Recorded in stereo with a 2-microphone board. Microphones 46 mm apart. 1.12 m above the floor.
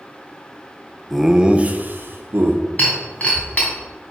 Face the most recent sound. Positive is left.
turn(degrees=35)  # may be behind; listen again after turning